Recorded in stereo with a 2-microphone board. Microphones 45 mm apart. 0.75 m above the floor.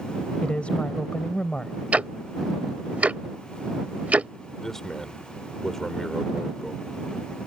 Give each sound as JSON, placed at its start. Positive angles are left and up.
{"t": 0.4, "sound": "a woman speaking", "side_deg": 25}
{"t": 1.9, "sound": "ticking", "side_deg": -35}
{"t": 4.6, "sound": "a man speaking", "side_deg": 10}